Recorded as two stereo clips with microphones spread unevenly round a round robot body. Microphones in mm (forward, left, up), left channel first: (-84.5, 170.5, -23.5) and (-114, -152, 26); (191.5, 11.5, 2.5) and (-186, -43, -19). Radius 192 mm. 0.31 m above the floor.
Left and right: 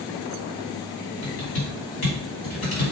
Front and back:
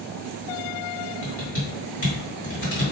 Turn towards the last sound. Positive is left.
turn(degrees=65)